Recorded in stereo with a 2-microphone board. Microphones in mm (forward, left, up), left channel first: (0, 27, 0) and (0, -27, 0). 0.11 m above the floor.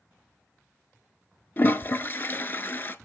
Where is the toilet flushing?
40° left (ahead or behind), 0.5 m.